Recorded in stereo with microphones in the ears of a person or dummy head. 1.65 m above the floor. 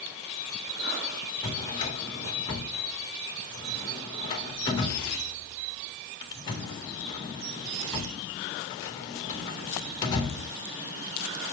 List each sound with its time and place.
1.4 s a drawer: 25° left (ahead or behind), 1.7 m